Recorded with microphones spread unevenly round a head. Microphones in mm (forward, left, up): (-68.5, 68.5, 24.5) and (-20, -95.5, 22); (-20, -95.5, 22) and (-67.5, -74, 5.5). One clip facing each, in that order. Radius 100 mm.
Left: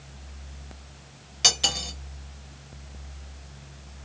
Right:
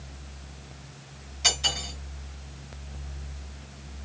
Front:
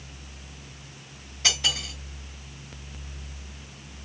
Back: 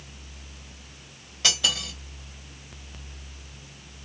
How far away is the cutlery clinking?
About 0.9 m.